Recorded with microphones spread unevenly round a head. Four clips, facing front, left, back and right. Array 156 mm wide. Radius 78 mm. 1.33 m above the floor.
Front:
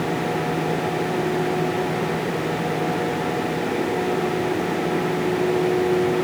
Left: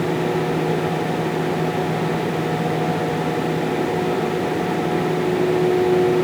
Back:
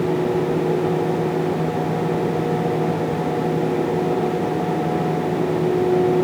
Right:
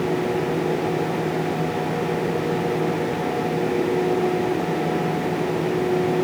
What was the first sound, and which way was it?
Only background noise.